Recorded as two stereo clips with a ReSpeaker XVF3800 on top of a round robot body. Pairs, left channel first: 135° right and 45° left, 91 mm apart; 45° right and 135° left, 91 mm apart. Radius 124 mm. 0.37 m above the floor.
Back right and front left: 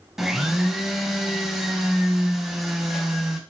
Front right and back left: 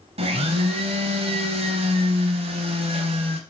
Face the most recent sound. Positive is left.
turn(degrees=130)